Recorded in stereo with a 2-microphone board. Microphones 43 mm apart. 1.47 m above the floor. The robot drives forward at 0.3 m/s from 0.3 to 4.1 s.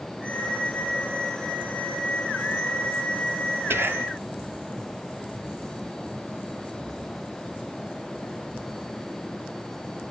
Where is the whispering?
60° right (ahead or behind), 0.5 m; by 4.2 s 65° right (ahead or behind), 0.5 m.